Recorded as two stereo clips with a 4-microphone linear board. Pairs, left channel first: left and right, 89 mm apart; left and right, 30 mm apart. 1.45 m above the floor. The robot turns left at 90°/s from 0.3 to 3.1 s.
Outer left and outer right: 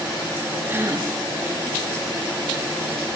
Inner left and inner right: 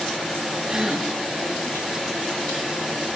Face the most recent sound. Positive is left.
turn(degrees=120)